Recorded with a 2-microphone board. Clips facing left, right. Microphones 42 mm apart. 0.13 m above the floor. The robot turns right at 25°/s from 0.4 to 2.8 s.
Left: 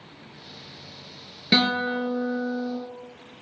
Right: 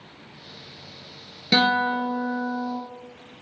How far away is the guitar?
About 0.8 m.